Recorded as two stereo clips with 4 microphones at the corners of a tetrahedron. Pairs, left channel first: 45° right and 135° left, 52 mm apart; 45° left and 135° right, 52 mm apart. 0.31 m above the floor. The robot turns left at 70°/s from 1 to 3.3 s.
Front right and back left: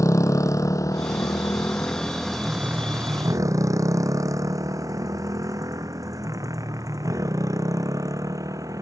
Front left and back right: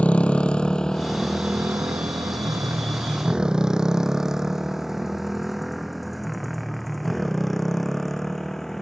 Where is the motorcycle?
20° right; by 8.8 s 130° left.